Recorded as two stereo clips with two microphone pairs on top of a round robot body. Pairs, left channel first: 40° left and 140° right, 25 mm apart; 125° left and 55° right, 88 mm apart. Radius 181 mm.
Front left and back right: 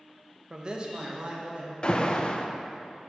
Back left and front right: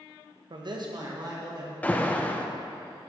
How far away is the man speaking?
About 0.8 m.